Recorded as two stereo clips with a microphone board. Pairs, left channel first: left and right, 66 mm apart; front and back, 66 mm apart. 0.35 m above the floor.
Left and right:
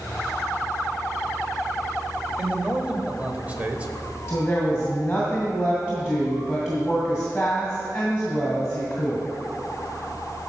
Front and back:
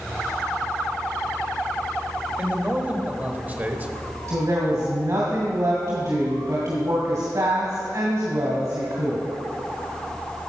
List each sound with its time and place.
2.4 s a man speaking: 140° right, 1.2 m
4.3 s a woman speaking: 170° left, 2 m